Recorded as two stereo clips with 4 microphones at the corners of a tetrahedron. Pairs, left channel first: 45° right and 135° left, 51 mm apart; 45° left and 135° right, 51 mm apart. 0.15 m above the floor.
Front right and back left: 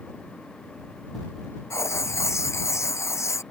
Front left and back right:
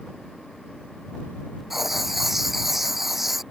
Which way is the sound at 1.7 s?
50° right.